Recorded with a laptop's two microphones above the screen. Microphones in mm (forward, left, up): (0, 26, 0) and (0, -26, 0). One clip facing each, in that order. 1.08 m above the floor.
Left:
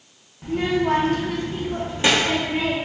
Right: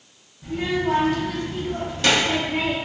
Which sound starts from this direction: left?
A child speaking, at 0.4 s.